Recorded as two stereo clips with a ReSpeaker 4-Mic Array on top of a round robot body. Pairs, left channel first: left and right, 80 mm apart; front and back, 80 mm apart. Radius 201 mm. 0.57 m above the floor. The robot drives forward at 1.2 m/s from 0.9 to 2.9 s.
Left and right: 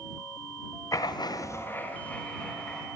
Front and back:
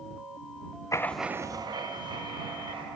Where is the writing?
45° left, 0.6 m; by 2.9 s 170° left, 2 m.